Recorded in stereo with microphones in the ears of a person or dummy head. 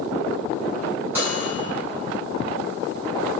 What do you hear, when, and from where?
1.1 s a microwave: 10° right (ahead or behind), 2.0 m